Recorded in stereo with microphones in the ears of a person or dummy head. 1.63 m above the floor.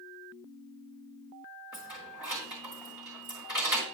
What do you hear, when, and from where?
1.7 s keys jangling: 5° right (ahead or behind), 1.3 m